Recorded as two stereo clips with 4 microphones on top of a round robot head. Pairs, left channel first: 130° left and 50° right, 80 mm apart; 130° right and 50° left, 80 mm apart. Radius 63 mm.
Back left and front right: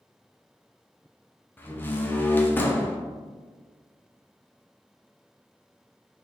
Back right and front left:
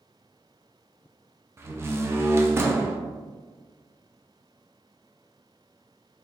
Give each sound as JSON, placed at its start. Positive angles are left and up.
{"t": 1.6, "sound": "a door slam", "azimuth_deg": 85, "distance_m": 0.6}